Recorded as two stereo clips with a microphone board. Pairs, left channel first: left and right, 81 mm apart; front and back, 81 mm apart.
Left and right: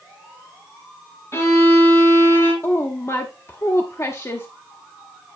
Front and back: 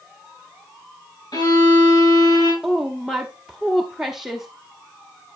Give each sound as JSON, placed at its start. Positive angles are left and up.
{"t": 1.3, "sound": "a violin", "azimuth_deg": 35, "distance_m": 3.5}
{"t": 2.6, "sound": "a woman speaking", "azimuth_deg": 95, "distance_m": 0.8}